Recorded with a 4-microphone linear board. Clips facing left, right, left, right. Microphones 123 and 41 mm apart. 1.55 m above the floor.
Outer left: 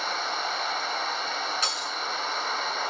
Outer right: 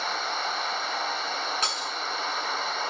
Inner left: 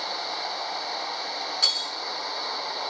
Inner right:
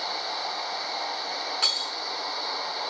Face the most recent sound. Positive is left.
turn(degrees=-50)  # may be behind; listen again after turning